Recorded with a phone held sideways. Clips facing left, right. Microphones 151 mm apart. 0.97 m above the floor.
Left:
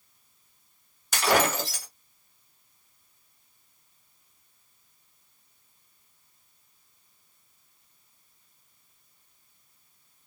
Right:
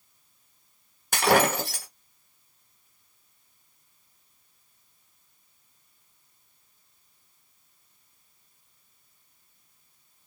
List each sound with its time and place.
1.1 s breaking glass: 55° right (ahead or behind), 1.4 m